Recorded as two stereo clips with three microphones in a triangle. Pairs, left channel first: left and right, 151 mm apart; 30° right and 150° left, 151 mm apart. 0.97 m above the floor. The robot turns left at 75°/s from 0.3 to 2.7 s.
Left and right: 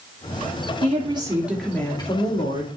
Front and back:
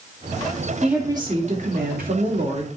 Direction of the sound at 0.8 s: 120° right.